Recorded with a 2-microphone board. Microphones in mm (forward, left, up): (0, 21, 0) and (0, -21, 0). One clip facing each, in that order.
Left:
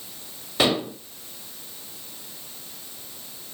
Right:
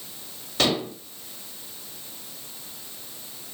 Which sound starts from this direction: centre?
Dishes clattering, at 0.6 s.